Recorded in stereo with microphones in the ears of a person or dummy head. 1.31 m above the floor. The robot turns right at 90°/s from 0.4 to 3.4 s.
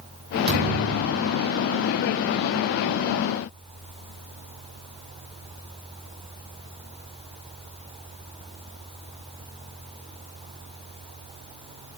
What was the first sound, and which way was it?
A thud, 60° right.